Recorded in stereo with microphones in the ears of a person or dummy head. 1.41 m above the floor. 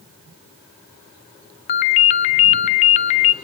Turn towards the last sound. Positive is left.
turn(degrees=40)  # may be behind; listen again after turning